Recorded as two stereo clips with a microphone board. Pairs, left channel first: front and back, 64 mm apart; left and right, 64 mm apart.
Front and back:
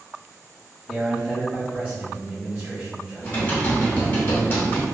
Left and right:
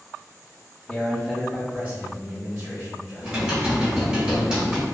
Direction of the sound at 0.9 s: 110° left.